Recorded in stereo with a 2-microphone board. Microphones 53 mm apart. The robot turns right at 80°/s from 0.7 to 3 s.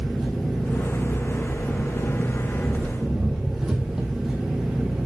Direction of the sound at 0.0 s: 5° left.